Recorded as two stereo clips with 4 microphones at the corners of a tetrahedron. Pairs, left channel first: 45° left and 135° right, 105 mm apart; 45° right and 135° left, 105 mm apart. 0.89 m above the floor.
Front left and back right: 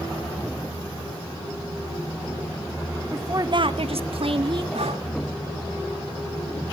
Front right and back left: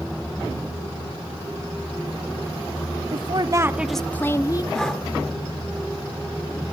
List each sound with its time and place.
3.1 s a woman speaking: 160° left, 0.9 m; by 4.6 s 100° right, 1.2 m
4.7 s breathing: 130° right, 1.5 m